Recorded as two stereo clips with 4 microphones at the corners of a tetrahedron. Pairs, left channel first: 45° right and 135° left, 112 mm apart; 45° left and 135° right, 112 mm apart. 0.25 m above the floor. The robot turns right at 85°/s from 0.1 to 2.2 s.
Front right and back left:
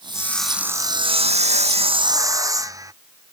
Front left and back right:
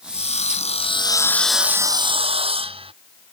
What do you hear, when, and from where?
0.1 s sawing: 20° left; by 2.9 s 165° right